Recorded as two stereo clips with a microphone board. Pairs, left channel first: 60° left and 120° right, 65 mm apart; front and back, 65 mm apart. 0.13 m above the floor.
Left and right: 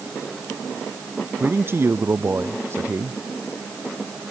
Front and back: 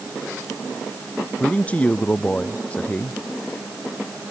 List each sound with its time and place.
1.4 s a man speaking: 70° right